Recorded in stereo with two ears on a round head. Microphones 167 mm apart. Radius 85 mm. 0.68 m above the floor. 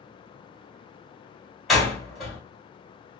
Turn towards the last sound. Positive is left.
turn(degrees=0)  # may be behind; listen again after turning